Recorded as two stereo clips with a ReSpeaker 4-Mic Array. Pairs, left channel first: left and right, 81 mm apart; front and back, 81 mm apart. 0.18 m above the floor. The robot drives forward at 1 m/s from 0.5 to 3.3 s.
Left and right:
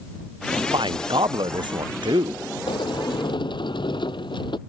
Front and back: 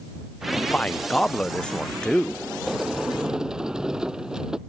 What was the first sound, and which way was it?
A man speaking, 75° right.